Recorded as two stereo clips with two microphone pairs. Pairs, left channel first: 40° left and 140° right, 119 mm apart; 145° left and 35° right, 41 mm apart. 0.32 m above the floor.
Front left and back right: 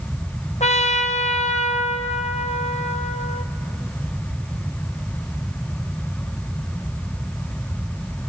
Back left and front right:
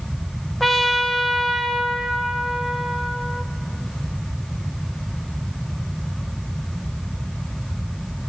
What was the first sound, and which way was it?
A trumpet, 55° left.